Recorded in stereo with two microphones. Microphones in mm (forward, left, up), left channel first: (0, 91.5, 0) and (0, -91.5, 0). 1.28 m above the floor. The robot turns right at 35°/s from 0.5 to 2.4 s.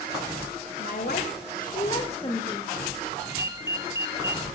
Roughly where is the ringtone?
Centre.